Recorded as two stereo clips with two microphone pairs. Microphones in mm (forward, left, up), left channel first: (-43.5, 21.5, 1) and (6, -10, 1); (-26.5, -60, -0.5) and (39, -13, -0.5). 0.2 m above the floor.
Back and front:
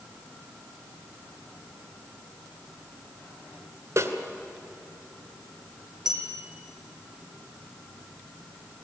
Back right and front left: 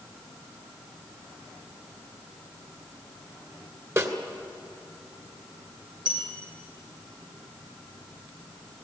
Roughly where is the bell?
Ahead left.